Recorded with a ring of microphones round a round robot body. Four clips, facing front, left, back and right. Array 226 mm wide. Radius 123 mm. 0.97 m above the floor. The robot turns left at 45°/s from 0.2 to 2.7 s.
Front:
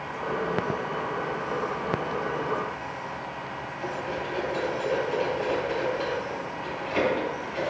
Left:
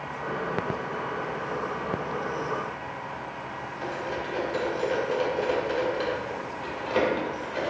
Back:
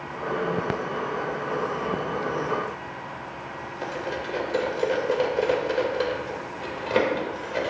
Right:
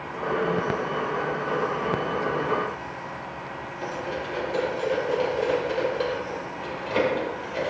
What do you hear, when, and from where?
3.8 s cutlery clinking: straight behind, 2.0 m